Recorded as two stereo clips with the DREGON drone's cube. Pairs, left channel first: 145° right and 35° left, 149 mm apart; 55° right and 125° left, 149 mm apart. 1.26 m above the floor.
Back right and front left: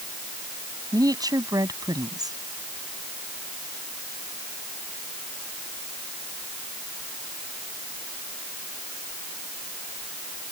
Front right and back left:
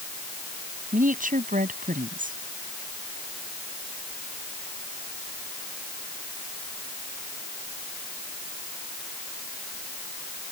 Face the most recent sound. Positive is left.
turn(degrees=100)